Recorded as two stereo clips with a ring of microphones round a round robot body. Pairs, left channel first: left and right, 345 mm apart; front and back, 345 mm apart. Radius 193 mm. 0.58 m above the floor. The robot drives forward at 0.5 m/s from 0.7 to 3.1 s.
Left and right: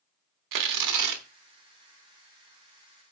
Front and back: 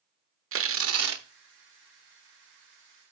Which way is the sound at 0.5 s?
125° right.